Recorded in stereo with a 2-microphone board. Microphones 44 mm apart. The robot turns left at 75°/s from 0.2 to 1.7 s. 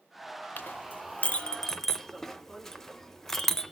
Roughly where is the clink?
Left.